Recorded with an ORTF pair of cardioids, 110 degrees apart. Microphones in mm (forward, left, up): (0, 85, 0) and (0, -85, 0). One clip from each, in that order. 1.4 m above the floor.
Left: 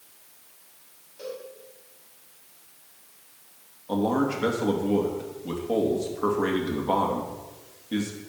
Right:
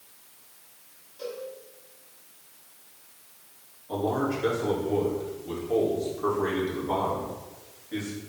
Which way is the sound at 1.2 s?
20° left.